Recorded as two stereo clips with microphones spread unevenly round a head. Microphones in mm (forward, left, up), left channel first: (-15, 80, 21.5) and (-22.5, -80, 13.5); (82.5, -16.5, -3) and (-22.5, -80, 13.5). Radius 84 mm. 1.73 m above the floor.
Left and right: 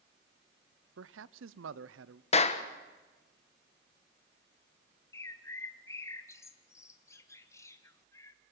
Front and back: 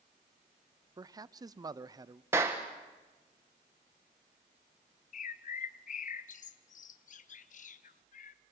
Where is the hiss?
I don't hear a hiss.